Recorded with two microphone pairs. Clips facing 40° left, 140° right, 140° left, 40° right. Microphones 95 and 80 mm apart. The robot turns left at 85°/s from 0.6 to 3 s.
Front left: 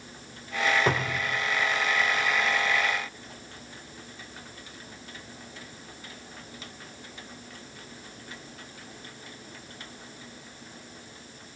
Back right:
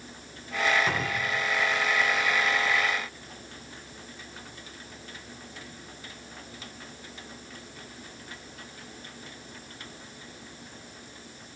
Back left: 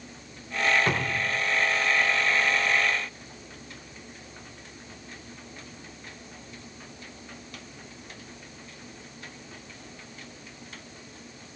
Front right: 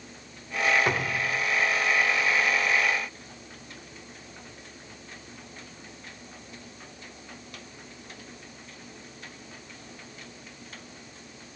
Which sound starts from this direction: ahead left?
A cupboard door, at 0.9 s.